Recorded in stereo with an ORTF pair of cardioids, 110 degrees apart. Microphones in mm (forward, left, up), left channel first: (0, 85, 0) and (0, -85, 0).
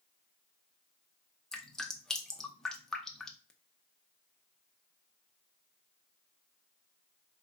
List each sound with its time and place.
1.5 s dripping: 5° left, 0.6 m